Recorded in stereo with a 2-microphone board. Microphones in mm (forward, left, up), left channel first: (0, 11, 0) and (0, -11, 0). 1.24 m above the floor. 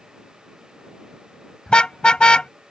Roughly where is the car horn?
Left.